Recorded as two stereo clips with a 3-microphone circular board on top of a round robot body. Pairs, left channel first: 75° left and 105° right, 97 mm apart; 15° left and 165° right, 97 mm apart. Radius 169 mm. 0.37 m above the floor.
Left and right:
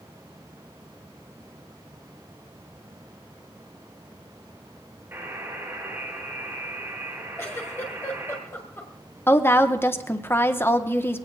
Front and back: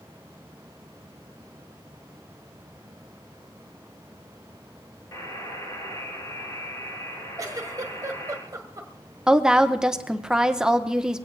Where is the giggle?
140° left, 1.7 m.